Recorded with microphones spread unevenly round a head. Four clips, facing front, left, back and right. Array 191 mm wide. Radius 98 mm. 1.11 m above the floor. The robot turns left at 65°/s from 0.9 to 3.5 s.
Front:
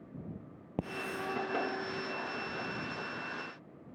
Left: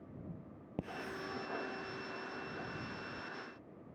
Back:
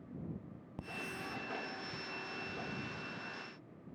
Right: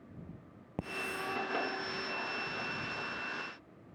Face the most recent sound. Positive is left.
turn(degrees=-170)